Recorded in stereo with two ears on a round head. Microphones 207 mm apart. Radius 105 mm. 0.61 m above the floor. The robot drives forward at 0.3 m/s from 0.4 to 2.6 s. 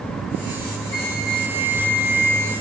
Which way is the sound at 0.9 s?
20° right (ahead or behind).